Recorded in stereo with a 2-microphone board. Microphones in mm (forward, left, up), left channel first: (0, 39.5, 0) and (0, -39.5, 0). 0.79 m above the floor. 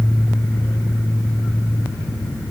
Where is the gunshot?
I don't hear a gunshot.